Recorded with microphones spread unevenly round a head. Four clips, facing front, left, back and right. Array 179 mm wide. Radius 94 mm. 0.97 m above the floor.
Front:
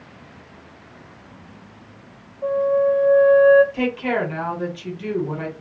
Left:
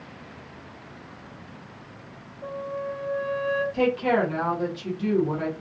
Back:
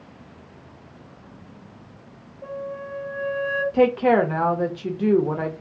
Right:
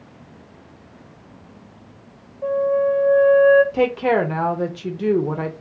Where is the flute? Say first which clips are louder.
Right 13 dB, front 15 dB; 35° right, 1.0 m.